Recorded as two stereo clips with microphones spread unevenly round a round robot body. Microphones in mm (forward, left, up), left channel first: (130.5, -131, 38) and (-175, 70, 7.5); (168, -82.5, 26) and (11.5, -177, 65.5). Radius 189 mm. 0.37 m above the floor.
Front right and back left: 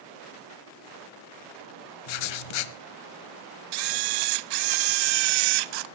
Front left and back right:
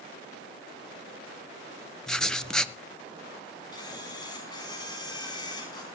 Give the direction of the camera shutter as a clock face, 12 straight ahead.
8 o'clock.